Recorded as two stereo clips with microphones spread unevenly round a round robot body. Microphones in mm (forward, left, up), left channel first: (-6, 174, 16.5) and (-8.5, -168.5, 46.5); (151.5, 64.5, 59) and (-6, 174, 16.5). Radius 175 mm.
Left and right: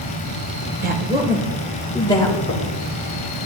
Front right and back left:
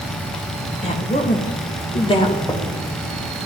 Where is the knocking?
45° left, 1.3 m.